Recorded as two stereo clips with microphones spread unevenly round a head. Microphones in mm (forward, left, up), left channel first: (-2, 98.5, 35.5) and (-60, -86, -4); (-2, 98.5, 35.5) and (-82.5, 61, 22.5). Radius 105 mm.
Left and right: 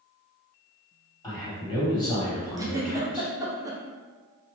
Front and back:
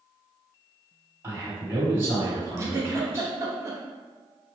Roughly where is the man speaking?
Behind left.